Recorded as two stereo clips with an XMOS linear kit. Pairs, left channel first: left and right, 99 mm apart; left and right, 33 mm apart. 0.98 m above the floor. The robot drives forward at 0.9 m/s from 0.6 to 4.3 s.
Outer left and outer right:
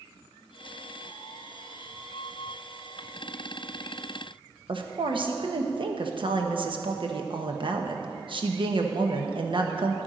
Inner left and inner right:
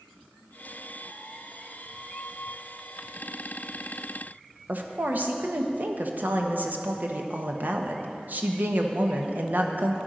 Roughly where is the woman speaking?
Right.